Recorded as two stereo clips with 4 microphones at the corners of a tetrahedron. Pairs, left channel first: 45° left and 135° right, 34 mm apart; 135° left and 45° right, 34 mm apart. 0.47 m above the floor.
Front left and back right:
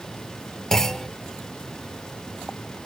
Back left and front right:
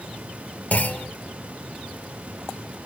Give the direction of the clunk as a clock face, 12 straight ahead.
8 o'clock.